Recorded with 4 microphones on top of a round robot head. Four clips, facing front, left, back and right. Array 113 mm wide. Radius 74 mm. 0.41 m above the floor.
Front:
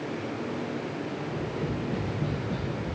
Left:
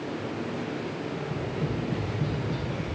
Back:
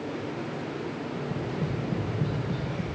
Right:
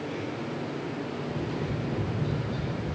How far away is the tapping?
About 8.5 m.